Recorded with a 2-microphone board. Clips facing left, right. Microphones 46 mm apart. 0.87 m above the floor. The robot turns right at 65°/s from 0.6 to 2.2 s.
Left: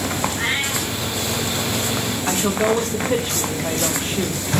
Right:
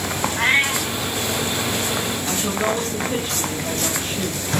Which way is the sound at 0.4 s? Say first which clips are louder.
Right 4 dB; 60° right (ahead or behind).